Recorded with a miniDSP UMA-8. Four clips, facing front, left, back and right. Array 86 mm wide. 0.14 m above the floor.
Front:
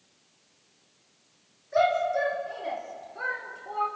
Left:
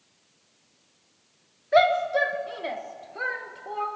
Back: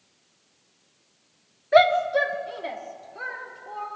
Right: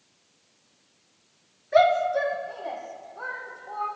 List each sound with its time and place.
1.7 s a shout: 170° left, 1.9 m; by 3.9 s 80° left, 2.5 m